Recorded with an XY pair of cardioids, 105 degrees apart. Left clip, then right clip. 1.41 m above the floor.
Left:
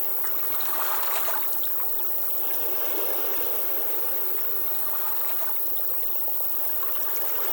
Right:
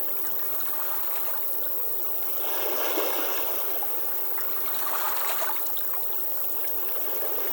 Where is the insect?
5° left, 3 m.